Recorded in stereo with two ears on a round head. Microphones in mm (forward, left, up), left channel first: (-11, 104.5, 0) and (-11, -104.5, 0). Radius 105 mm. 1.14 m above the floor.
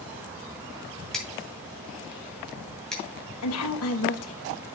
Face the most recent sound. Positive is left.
turn(degrees=75)  # may be behind; listen again after turning